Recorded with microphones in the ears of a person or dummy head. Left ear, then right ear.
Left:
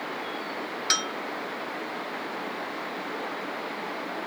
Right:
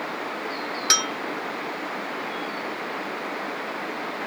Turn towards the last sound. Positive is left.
turn(degrees=0)  # may be behind; listen again after turning